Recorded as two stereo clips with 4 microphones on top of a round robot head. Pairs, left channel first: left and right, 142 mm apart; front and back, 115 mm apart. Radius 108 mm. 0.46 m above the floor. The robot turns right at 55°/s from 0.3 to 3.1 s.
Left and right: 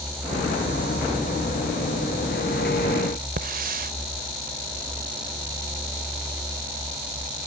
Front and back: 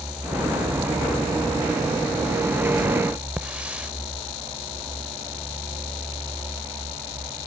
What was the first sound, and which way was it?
A hiss, 100° right.